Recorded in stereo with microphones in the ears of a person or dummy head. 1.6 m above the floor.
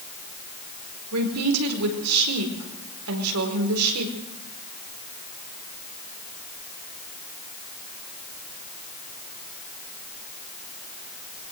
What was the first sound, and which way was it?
A woman speaking, 75° right (ahead or behind).